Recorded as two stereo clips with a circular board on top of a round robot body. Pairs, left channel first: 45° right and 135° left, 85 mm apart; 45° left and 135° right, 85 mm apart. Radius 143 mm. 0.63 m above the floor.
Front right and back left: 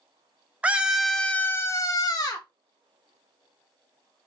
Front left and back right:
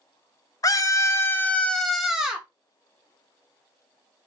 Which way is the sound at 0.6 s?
65° left.